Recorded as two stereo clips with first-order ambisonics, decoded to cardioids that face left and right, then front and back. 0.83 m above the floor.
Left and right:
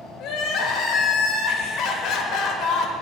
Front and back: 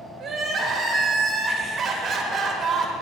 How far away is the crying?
About 0.8 m.